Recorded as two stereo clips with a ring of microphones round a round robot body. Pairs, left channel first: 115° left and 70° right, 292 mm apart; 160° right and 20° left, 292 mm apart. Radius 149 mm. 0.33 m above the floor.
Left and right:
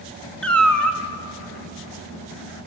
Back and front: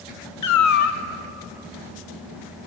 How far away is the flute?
I don't hear a flute.